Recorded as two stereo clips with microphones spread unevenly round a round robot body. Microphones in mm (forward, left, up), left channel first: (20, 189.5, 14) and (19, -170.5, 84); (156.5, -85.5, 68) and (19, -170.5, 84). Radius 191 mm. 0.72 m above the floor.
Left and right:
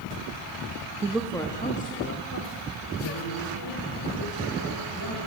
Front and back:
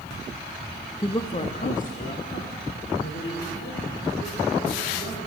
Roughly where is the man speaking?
Ahead.